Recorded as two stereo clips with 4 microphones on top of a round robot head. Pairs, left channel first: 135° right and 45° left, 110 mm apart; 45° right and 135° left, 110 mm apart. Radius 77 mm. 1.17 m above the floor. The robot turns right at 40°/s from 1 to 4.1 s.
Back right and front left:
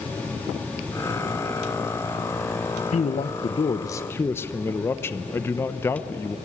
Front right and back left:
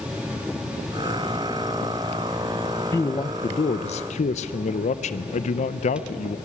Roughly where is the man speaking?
Right.